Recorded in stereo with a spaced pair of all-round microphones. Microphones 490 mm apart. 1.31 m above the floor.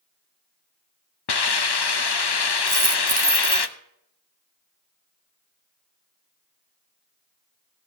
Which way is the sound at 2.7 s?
40° right (ahead or behind).